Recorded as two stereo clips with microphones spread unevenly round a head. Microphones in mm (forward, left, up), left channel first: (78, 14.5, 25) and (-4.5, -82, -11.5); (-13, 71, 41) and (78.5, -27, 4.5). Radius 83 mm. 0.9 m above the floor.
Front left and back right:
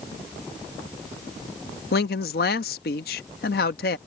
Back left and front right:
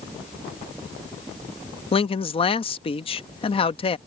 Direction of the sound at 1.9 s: 80° left.